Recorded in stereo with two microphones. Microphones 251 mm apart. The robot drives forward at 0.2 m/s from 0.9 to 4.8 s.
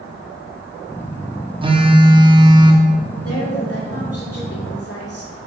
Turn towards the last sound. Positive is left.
turn(degrees=65)  # may be behind; listen again after turning